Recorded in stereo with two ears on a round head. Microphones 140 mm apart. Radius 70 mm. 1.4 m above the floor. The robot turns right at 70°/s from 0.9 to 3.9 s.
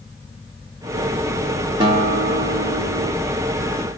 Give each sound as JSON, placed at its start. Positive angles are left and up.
{"t": 1.8, "sound": "a guitar", "azimuth_deg": -145, "distance_m": 2.5}